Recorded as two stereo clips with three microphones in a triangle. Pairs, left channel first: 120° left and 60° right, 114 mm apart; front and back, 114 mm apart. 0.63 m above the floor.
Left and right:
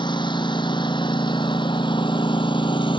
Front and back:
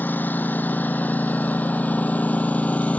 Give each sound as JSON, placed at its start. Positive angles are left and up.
{"t": 0.0, "sound": "a lawn mower", "azimuth_deg": 75}